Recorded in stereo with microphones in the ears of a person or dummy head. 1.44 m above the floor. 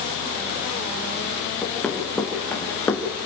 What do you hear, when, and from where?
1.6 s running footsteps: 5° left (ahead or behind), 6 m; by 3.0 s 15° left (ahead or behind), 4 m